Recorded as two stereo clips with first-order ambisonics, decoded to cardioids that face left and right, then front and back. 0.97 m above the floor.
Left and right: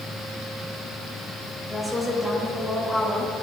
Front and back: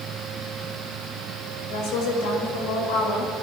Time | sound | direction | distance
1.7 | a woman speaking | straight ahead | 4.5 m